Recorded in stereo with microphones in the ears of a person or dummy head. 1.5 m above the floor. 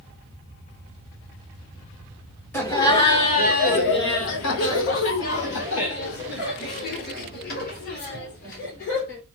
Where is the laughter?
10° left (ahead or behind), 1.1 m; by 9.2 s 50° left (ahead or behind), 3.5 m.